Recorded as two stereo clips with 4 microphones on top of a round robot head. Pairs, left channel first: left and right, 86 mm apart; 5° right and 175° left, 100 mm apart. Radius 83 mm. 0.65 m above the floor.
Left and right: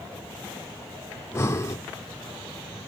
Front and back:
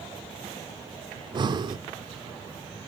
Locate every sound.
1.1 s breathing: 145° left, 1.6 m